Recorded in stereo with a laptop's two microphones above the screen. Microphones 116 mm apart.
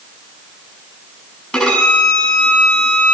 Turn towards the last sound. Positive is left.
turn(degrees=5)  # may be behind; listen again after turning